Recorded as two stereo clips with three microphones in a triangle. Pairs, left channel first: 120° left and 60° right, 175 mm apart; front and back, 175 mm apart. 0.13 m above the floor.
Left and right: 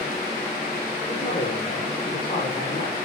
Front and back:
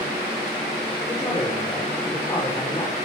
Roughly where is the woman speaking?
Left.